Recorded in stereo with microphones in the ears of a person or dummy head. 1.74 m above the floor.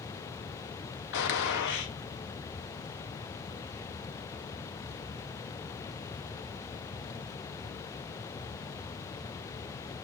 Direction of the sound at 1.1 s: 65° left (ahead or behind).